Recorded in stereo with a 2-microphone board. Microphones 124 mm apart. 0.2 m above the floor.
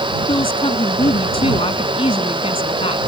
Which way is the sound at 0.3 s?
50° left (ahead or behind).